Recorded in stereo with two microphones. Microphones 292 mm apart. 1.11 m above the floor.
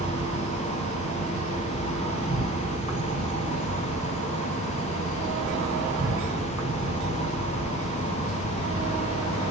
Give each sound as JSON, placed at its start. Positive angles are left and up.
{"t": 0.0, "sound": "an insect", "side_deg": -85, "distance_m": 4.5}